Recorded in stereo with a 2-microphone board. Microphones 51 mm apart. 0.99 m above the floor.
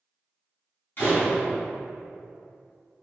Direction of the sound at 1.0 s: 45° left (ahead or behind).